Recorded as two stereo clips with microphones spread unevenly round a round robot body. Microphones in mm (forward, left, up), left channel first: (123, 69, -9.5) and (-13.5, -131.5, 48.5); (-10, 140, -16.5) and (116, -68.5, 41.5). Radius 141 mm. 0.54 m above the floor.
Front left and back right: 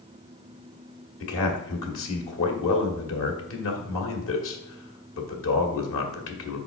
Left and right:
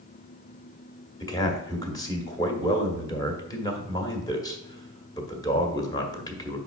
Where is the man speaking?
50° left, 1.7 m.